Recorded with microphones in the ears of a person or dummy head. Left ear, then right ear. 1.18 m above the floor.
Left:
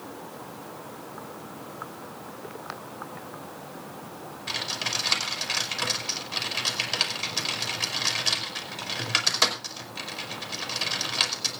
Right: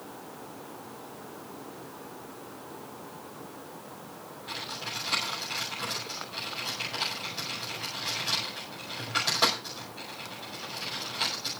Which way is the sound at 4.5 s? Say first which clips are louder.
Left 7 dB; 55° left (ahead or behind).